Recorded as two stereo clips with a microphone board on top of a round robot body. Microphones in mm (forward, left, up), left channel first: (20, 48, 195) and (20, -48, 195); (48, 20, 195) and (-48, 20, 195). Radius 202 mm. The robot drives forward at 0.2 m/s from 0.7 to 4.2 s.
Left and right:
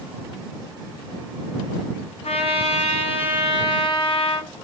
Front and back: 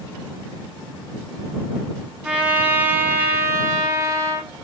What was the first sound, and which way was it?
A trumpet, 100° left.